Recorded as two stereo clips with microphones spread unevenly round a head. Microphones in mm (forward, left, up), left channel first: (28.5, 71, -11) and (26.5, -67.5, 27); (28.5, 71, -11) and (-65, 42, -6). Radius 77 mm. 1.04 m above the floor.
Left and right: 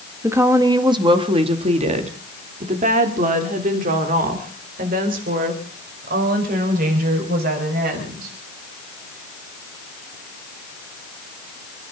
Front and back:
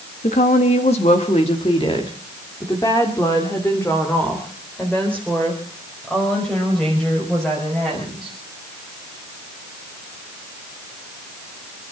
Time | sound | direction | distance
0.2 | a woman speaking | 15° right | 1.7 m